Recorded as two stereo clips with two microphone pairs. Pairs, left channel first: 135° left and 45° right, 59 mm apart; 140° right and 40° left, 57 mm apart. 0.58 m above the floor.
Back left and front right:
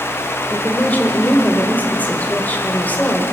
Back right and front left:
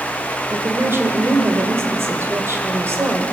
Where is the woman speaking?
75° left, 1.8 m.